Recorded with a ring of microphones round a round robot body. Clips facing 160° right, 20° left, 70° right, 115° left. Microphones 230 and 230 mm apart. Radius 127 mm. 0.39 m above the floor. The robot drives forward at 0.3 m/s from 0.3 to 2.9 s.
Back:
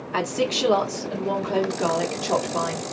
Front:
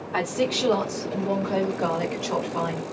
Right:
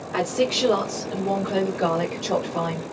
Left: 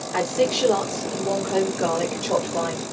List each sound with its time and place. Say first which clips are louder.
0.1 s a woman speaking: even, left 1 dB; 150° right, 1.4 m; by 2.9 s 165° right, 1.9 m